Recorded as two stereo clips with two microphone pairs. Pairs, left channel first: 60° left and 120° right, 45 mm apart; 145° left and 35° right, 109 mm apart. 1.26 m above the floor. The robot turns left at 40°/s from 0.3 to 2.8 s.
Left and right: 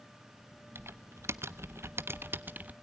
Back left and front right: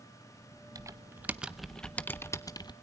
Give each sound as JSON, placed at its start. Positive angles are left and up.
{"t": 0.8, "sound": "typing on a keyboard", "azimuth_deg": -90, "distance_m": 1.0}